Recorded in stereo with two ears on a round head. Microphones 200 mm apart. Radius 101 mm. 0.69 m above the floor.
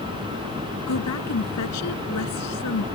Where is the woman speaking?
80° left.